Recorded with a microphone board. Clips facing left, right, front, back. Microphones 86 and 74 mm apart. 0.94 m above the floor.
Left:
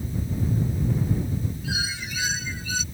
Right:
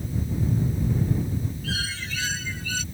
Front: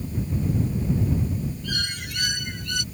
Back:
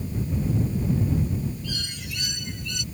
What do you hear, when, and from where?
1.6 s a bird: 15° left